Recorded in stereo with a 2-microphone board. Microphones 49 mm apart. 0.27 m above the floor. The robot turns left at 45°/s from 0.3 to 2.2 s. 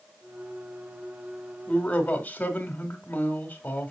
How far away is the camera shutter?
I don't hear a camera shutter.